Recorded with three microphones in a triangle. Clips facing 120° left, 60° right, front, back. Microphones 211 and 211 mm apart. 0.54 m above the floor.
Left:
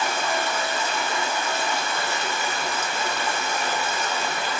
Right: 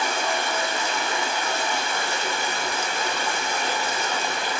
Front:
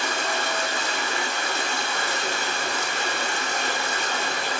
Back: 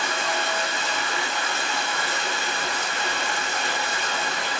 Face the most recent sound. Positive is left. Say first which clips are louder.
# even, even
turn(degrees=15)